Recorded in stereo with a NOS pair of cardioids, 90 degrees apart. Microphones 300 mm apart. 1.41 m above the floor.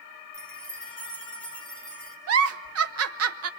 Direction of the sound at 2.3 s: 50° right.